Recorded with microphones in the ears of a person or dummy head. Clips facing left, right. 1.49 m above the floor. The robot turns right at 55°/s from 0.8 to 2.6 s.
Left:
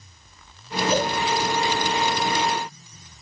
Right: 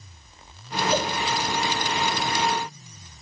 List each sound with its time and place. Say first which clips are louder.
0.9 s a cowbell: left 3 dB; 25° left (ahead or behind), 2 m; by 1.1 s 40° left (ahead or behind), 2 m